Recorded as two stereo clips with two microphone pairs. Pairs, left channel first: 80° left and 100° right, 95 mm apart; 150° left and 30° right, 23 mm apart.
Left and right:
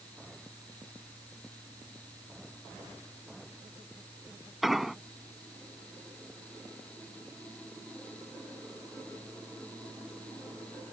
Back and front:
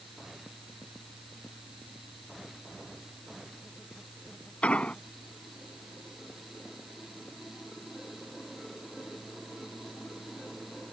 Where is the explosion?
175° left.